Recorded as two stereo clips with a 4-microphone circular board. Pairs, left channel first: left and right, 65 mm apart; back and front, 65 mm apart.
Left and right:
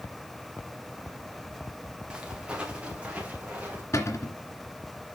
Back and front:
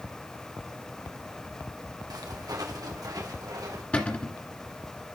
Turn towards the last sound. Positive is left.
turn(degrees=115)